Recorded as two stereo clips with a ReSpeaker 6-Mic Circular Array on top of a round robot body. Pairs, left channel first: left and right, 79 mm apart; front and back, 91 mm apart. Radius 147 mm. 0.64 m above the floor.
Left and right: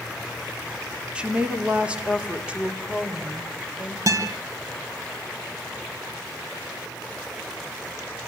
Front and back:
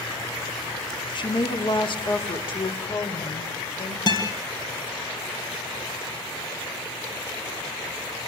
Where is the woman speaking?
15° right, 2 m.